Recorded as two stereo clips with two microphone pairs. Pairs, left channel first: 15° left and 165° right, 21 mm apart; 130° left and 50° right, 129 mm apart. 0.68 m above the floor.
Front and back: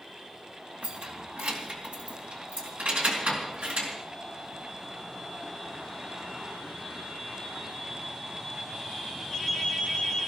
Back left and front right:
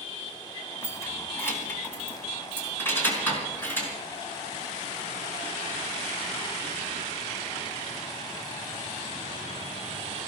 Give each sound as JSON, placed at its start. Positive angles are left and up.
{"t": 0.8, "sound": "keys jangling", "azimuth_deg": -165, "distance_m": 3.0}